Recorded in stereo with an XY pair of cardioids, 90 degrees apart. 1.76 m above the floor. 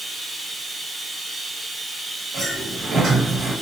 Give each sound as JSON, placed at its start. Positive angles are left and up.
{"t": 0.0, "sound": "running water", "azimuth_deg": -15, "distance_m": 1.3}
{"t": 2.3, "sound": "a sliding door", "azimuth_deg": -60, "distance_m": 1.4}